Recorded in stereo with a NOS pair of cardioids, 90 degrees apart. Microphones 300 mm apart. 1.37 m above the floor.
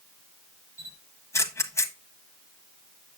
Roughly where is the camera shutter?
Ahead.